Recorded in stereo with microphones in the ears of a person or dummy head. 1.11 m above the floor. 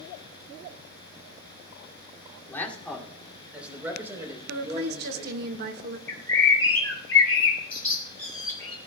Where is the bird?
15° left (ahead or behind), 6 m.